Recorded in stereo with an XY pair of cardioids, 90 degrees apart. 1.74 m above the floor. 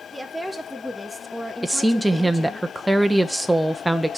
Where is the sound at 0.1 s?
10° right, 2.5 m; by 2.6 s 25° left, 2.5 m.